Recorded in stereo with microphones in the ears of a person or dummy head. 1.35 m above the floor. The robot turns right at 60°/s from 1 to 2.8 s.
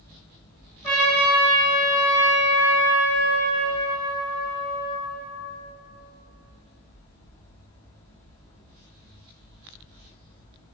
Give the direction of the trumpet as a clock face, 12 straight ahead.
11 o'clock.